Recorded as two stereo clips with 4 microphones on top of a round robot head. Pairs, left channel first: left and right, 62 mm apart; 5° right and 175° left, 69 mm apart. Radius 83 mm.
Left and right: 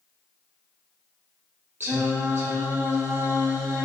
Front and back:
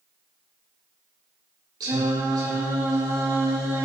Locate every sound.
1.8 s singing: 145° right, 5.5 m